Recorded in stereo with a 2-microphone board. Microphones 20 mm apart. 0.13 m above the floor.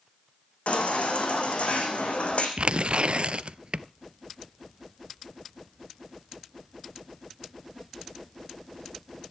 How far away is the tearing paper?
About 0.6 m.